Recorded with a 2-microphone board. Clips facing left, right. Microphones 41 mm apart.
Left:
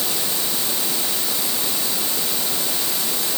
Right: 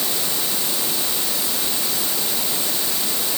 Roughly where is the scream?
No scream in this recording.